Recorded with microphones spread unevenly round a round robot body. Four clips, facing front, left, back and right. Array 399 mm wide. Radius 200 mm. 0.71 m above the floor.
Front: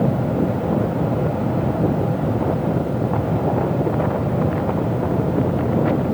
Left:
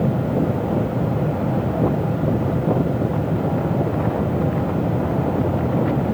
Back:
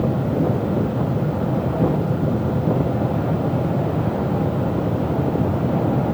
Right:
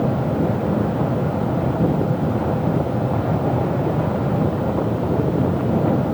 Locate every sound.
Only background noise.